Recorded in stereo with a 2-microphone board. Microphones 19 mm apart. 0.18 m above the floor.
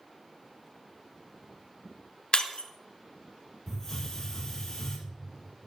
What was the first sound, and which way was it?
Breaking glass, 55° left (ahead or behind).